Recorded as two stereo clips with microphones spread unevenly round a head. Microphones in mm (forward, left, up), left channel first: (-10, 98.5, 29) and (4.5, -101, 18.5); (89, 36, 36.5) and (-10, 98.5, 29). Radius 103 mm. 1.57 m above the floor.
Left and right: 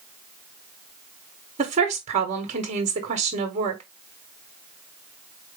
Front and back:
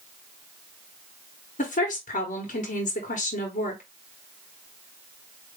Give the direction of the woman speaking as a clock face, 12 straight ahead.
1 o'clock.